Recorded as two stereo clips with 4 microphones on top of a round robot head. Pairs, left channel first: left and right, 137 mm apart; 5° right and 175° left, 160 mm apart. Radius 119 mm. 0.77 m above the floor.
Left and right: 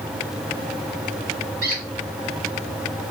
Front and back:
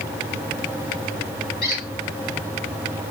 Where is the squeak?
55° right, 2 m.